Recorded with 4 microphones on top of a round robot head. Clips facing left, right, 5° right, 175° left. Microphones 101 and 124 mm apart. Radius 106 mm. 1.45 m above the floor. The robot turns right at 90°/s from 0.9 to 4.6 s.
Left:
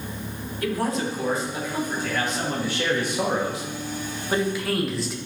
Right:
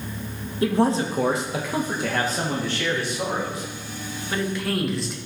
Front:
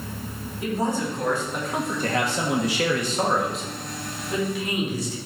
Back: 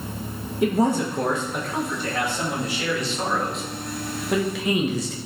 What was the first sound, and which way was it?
A man speaking, 155° right.